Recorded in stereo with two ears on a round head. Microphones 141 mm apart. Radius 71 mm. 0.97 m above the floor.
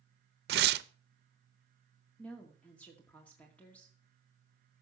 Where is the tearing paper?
70° right (ahead or behind), 0.6 m.